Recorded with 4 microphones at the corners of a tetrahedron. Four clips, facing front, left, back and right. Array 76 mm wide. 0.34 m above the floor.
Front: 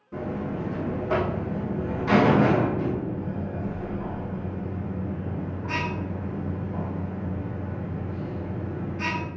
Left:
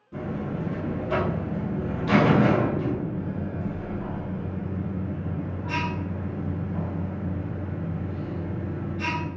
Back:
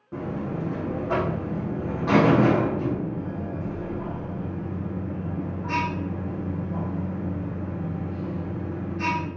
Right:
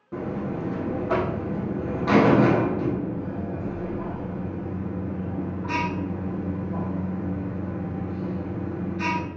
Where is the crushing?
I don't hear crushing.